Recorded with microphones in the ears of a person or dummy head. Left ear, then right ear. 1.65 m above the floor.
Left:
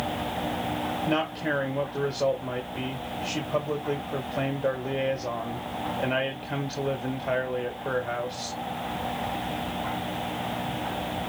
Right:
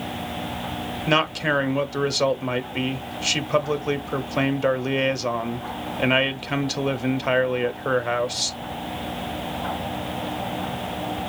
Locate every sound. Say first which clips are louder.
1.1 s a man speaking: right 9 dB; 65° right (ahead or behind), 0.9 m